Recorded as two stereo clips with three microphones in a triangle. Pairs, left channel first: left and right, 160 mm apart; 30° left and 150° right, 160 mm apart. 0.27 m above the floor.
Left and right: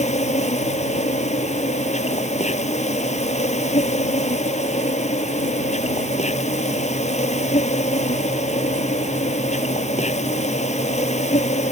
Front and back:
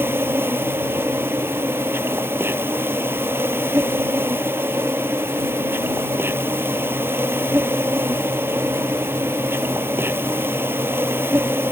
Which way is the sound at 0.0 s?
135° left.